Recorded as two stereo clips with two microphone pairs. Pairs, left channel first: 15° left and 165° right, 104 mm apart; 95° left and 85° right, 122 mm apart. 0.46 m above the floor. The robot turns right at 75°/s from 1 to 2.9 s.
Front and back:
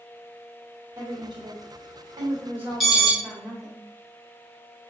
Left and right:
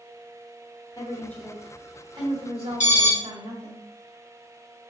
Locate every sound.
1.0 s a woman speaking: 145° left, 1.6 m; by 3.8 s 75° right, 1.6 m
2.8 s an alarm: 110° left, 2.5 m; by 3.1 s 115° left, 2.5 m